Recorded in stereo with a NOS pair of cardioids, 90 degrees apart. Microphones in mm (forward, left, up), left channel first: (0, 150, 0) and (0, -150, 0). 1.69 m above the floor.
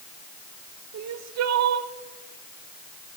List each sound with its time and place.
0.9 s crying: 60° right, 1.1 m